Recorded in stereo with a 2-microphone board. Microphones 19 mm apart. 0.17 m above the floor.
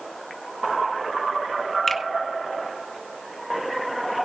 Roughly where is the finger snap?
Centre.